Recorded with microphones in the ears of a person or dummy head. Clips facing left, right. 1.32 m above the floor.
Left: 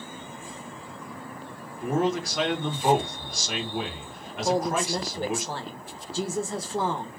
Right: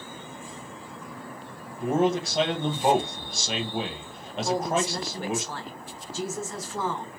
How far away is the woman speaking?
About 0.8 m.